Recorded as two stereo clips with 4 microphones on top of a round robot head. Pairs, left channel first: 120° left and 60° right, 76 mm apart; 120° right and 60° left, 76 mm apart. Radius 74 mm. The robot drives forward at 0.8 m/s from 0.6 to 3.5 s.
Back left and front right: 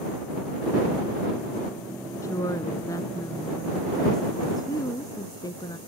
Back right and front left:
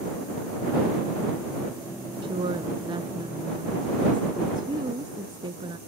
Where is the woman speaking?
70° left; by 5.8 s 80° left.